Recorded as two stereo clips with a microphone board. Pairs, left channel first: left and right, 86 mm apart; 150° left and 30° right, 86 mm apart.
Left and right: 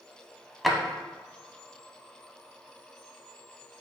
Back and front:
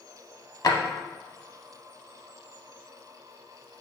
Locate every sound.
0.6 s a drawer: straight behind, 0.6 m